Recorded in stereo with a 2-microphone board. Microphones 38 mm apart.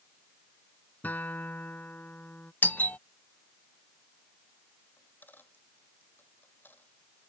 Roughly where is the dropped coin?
Left.